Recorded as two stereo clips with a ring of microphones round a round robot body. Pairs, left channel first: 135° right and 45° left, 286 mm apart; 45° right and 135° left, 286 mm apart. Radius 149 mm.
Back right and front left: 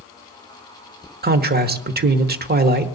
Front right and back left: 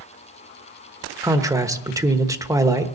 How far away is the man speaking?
About 1.1 m.